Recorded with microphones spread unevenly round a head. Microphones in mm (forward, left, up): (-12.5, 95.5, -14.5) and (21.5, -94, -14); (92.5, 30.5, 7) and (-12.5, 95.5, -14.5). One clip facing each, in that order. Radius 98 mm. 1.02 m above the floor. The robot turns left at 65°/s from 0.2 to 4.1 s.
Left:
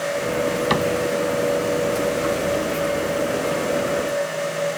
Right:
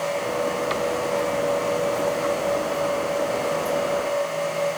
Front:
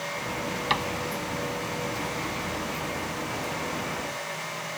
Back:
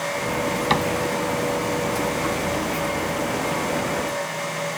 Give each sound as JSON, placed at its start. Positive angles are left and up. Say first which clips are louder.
{"t": 0.7, "sound": "a cupboard door", "louder": "left 4 dB, back 6 dB", "azimuth_deg": 110}